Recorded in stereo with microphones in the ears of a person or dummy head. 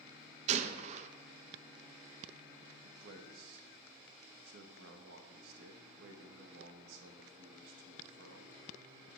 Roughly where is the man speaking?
Right.